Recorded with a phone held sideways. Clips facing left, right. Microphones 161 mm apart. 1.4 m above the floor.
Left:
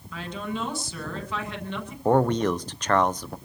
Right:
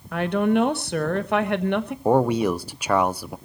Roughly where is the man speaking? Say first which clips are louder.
Right 1 dB; centre.